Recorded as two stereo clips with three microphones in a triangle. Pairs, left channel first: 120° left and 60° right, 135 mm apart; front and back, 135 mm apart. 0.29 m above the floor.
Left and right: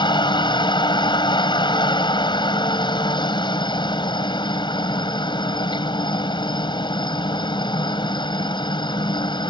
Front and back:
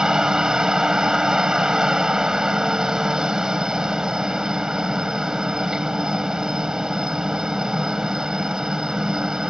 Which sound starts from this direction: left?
A helicopter, at 0.0 s.